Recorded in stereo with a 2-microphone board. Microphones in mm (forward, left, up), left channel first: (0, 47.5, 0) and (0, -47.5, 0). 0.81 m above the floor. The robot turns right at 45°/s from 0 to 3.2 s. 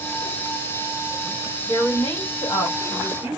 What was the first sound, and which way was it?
A woman speaking, 15° left.